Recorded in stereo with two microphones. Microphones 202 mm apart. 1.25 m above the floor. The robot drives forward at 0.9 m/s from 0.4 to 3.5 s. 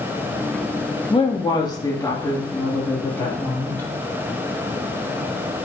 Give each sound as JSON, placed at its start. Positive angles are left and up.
{"t": 1.1, "sound": "a woman speaking", "side_deg": 25, "distance_m": 1.4}